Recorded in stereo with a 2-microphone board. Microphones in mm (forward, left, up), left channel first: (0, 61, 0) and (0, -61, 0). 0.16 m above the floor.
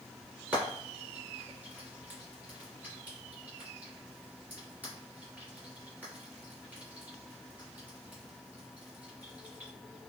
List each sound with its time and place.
0.5 s frying: 15° right (ahead or behind), 1.5 m